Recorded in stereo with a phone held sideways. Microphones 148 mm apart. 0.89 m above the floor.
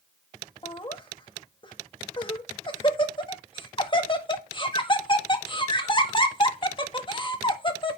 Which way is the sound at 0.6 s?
35° left (ahead or behind).